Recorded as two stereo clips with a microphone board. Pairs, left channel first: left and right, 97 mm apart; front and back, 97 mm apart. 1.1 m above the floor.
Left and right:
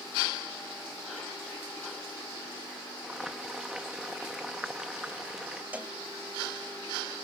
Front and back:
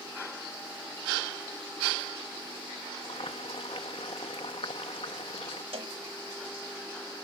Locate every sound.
3.0 s boiling: 5° right
5.7 s a cowbell: 160° right